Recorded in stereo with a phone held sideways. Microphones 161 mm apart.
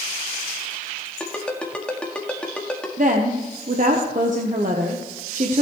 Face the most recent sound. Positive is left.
turn(degrees=-55)  # may be behind; listen again after turning